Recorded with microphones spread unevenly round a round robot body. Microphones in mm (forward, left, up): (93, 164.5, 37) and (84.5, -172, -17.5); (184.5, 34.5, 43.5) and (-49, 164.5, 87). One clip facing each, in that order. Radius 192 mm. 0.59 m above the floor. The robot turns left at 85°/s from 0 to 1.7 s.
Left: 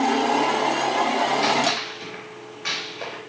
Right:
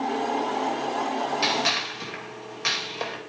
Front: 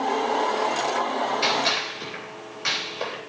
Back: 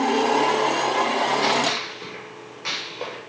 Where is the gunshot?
75° right, 3 m; by 3.2 s 100° right, 3 m.